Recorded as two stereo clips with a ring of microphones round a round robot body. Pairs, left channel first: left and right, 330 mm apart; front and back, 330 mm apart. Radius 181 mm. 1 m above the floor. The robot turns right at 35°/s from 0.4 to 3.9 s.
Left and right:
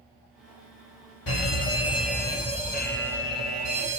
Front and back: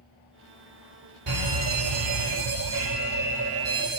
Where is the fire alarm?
145° left, 4 m; by 4.0 s 125° right, 4 m.